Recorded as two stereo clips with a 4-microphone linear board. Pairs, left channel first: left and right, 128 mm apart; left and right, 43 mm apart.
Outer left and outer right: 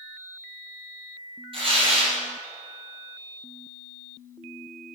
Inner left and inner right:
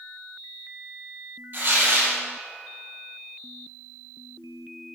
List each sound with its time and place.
1.5 s tearing paper: 45° right (ahead or behind), 4.5 m